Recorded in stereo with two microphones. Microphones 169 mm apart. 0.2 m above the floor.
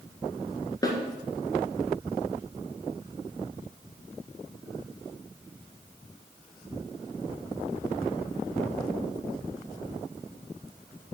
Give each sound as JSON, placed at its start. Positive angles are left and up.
{"t": 0.8, "sound": "a snare drum", "side_deg": 25, "distance_m": 1.4}